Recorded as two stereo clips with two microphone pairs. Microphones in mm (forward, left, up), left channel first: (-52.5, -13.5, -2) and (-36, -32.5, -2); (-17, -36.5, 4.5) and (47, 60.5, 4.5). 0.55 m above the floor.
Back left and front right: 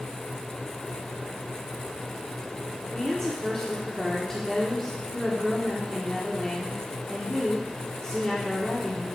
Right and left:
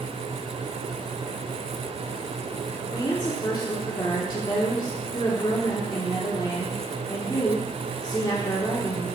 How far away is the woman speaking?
About 1.6 m.